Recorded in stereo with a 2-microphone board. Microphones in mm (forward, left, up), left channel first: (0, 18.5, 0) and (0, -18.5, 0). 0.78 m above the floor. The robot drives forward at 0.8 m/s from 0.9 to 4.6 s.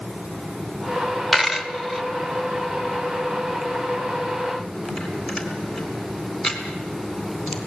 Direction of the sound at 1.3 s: 5° right (ahead or behind).